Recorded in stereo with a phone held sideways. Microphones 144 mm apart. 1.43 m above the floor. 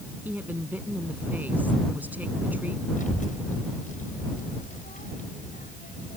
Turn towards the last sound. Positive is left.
turn(degrees=65)  # may be behind; listen again after turning